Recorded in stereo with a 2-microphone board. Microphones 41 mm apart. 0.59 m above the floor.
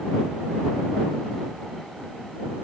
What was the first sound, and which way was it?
Only background noise.